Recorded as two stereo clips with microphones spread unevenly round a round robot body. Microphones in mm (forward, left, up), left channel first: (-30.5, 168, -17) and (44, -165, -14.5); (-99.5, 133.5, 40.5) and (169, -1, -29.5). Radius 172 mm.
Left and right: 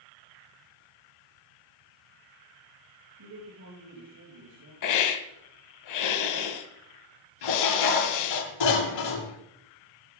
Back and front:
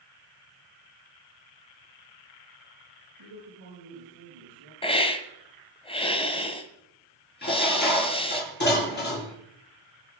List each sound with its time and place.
3.2 s a man speaking: 40° right, 6 m
4.8 s a hiss: 75° left, 1.5 m
7.4 s dishes clattering: 95° left, 4.5 m